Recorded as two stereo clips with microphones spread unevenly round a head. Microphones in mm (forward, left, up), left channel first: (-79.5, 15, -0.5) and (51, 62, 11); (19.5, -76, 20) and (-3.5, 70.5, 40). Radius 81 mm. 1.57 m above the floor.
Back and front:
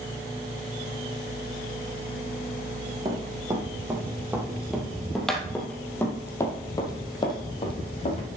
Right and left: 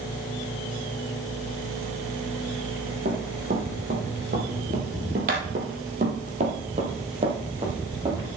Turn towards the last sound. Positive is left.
turn(degrees=155)